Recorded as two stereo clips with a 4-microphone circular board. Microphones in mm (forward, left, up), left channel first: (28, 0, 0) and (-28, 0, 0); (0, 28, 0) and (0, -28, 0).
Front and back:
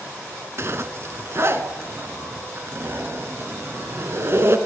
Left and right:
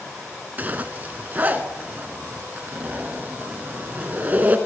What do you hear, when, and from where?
0.6 s a zipper: 145° right, 1.0 m